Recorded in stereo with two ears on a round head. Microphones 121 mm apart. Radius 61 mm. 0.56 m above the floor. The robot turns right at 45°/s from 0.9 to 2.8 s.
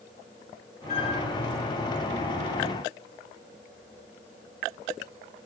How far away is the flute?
About 10 m.